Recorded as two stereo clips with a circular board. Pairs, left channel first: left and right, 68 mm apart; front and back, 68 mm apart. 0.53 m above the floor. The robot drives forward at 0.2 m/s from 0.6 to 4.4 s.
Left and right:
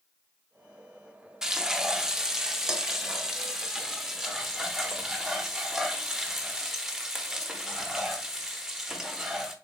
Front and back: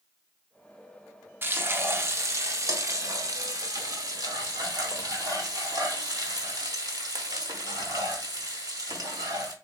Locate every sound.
1.4 s frying: 165° right, 0.6 m; by 9.6 s 175° right, 1.1 m